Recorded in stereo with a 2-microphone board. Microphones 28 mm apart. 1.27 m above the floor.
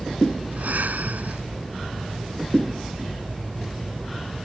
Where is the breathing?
80° right.